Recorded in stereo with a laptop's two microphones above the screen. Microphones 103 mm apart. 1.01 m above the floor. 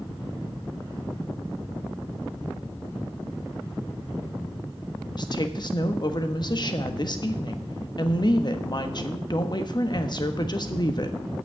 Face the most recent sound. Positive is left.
turn(degrees=45)  # may be behind; listen again after turning